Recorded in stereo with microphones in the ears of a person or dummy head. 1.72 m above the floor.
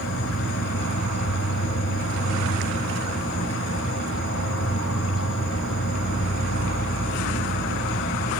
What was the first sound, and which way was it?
An insect, 60° left (ahead or behind).